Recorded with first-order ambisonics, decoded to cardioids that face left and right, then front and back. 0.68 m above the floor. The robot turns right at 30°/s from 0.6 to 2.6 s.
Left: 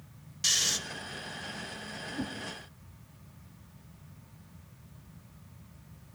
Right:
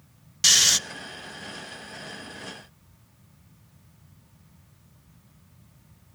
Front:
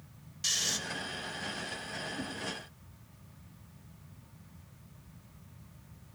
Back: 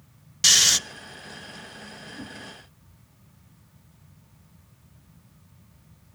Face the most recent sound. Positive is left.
turn(degrees=100)